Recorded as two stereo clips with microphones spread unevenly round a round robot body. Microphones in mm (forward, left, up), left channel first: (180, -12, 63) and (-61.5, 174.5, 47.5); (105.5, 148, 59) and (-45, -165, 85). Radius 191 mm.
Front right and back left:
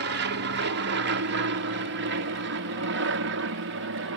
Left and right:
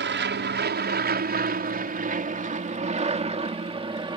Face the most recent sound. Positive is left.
turn(degrees=170)